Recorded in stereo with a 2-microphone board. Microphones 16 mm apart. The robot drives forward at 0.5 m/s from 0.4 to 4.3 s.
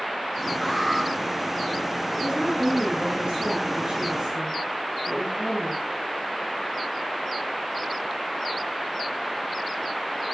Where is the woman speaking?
70° right (ahead or behind), 7.5 m; by 5.8 s 80° right, 7.5 m.